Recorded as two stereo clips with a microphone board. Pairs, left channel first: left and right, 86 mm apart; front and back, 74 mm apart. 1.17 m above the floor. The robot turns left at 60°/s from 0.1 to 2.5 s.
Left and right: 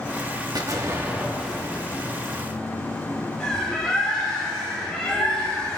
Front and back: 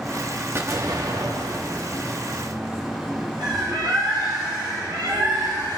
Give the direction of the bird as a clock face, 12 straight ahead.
6 o'clock.